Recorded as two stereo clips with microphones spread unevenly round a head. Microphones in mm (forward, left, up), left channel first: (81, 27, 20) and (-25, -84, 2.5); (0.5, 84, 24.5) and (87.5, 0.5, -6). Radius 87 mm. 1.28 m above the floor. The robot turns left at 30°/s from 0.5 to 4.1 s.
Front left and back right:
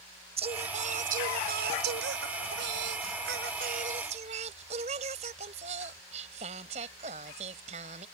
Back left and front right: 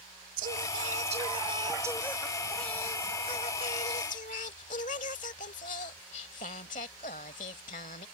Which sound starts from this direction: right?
Singing, at 0.4 s.